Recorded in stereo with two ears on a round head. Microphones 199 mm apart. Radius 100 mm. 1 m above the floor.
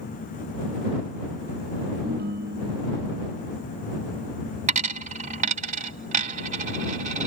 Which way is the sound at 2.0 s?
45° right (ahead or behind).